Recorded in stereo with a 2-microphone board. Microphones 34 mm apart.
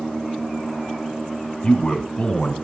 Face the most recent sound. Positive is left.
turn(degrees=20)  # may be behind; listen again after turning